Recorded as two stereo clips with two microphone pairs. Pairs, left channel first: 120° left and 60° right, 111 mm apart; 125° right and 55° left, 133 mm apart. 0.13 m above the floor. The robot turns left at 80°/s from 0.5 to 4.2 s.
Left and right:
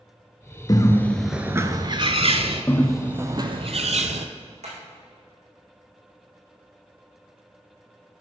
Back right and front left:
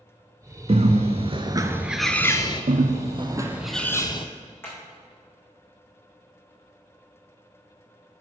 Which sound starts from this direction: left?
A bird, at 0.7 s.